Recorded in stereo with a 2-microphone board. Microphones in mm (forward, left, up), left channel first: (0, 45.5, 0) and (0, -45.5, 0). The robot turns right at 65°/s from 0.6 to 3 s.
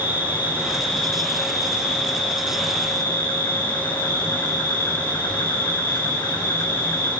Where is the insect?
20° right, 8 m; by 7.2 s 135° left, 8 m.